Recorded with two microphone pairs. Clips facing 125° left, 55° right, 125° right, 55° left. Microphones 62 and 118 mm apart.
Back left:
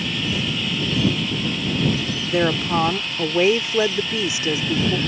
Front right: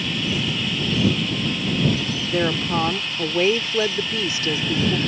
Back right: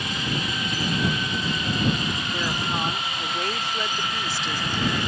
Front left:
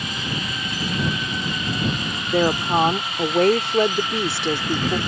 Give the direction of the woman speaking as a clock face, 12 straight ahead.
10 o'clock.